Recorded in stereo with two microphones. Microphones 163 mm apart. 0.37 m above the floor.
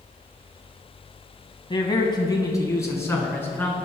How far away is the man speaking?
About 2.5 m.